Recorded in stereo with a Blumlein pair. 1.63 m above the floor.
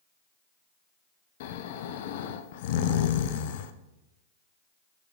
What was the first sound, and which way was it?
Snoring, 55° left.